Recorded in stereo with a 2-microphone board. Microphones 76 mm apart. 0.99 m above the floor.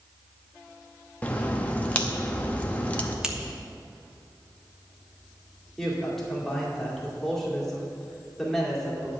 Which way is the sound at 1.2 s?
20° left (ahead or behind).